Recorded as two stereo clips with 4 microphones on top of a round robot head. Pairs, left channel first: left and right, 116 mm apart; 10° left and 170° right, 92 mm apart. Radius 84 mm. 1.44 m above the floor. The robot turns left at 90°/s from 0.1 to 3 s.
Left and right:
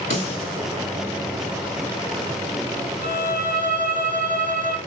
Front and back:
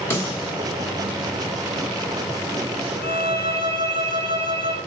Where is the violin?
165° left, 2 m.